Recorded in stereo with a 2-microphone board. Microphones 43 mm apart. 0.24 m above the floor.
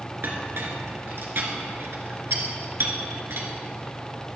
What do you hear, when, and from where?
0.2 s a clink: 65° right (ahead or behind), 2.5 m